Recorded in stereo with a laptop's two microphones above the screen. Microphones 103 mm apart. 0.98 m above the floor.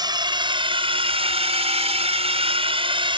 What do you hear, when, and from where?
0.0 s a drone: 45° right (ahead or behind); by 3.2 s 50° right (ahead or behind)